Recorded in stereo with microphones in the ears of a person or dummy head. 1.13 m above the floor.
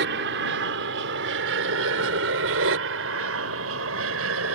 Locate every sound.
0.0 s an aircraft: 60° right (ahead or behind); by 4.5 s 70° right (ahead or behind)